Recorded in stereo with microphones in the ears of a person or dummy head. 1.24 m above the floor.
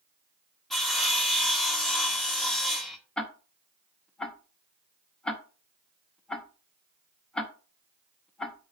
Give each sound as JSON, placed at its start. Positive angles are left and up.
{"t": 0.7, "sound": "sawing", "side_deg": 0, "distance_m": 1.3}
{"t": 3.2, "sound": "ticking", "side_deg": 0, "distance_m": 1.1}